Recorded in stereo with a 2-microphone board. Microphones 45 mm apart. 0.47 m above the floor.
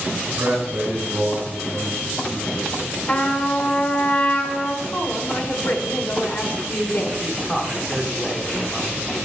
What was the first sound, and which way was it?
A man speaking, 60° right (ahead or behind).